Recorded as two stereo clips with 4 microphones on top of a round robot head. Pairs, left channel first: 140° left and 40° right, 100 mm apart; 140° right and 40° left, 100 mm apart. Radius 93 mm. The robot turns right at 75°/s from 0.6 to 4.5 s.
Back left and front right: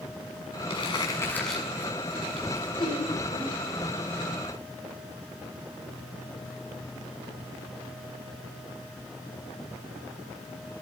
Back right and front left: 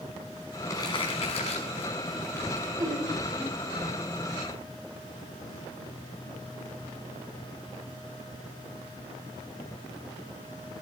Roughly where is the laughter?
Left.